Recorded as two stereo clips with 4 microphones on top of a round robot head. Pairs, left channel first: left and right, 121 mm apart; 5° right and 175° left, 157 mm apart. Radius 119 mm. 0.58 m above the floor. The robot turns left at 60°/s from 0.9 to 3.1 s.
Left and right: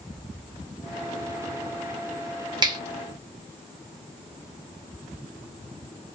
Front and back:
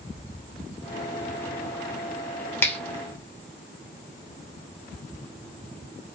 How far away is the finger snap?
About 0.8 m.